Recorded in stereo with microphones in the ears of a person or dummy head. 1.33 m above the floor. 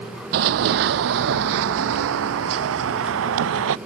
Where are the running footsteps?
45° right (ahead or behind); by 3.8 s 75° right (ahead or behind).